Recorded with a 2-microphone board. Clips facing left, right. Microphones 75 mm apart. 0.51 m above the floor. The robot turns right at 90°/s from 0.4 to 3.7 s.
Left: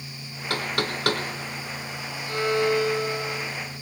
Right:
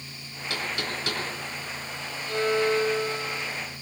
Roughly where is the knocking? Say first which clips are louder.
Left 4 dB; left.